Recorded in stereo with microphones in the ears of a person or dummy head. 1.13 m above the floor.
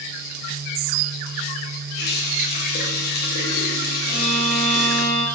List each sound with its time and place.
1.9 s a running tap: 45° left (ahead or behind), 0.5 m
4.0 s a violin: 50° right (ahead or behind), 1.1 m